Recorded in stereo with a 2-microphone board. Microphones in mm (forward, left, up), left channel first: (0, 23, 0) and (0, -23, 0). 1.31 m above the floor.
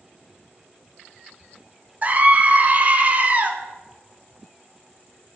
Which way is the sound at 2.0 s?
35° right (ahead or behind).